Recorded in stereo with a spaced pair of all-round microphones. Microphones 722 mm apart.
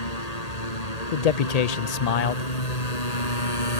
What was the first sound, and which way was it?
A motorcycle, 60° left (ahead or behind).